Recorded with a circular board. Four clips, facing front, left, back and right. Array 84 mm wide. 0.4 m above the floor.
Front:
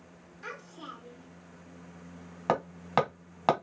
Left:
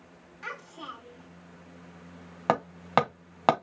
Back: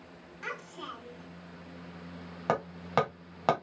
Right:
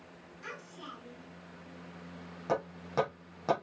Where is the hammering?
85° left, 1.5 m.